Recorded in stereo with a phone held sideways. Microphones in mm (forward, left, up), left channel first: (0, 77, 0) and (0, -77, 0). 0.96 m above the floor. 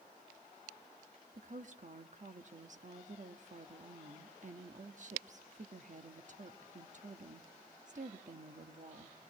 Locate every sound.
1.3 s a woman speaking: 55° right (ahead or behind), 1.2 m